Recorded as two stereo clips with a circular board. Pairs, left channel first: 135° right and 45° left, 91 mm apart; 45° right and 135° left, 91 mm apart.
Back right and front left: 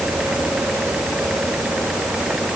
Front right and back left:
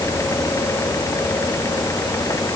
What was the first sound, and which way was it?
Only background noise.